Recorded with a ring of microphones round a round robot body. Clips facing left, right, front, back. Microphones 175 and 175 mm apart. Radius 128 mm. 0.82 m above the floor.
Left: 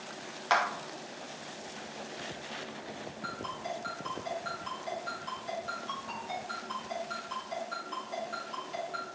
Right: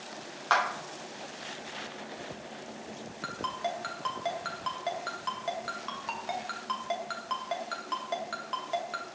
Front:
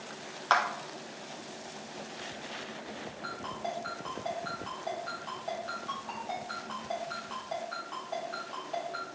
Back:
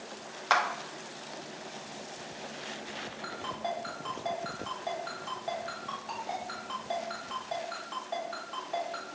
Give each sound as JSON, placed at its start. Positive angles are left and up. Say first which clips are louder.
{"t": 0.5, "sound": "a clap", "louder": "even, even", "azimuth_deg": 125, "distance_m": 0.7}
{"t": 3.2, "sound": "a ringtone", "louder": "right 6 dB, back 2 dB", "azimuth_deg": -100, "distance_m": 0.7}